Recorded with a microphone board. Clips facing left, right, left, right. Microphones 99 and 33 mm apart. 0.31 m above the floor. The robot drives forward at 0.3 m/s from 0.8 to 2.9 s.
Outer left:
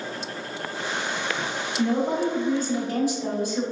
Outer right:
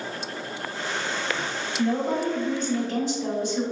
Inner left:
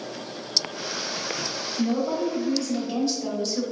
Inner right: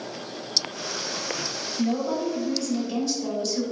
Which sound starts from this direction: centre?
A woman speaking, at 1.8 s.